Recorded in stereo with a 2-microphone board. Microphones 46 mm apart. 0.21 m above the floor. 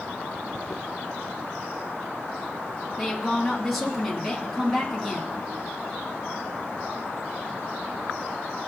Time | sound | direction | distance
3.0 | a woman speaking | centre (ahead or behind) | 2.5 m